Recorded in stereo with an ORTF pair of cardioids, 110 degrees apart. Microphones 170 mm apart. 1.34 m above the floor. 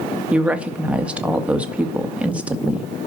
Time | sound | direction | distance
0.3 | a woman speaking | 5° right | 1.9 m